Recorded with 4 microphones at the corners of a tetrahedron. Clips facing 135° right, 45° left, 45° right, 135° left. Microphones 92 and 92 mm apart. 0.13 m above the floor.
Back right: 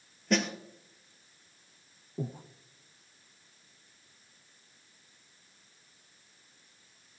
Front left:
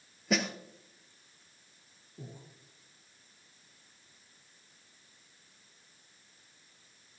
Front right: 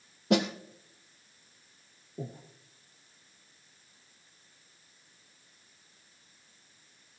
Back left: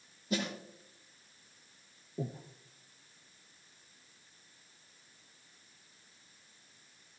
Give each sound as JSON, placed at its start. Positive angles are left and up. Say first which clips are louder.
{"t": 0.3, "sound": "a snare drum", "louder": "back right 2 dB, front right 9 dB", "azimuth_deg": -40, "distance_m": 1.5}
{"t": 2.2, "sound": "breathing", "louder": "back right 11 dB, back left 1 dB", "azimuth_deg": -140, "distance_m": 1.1}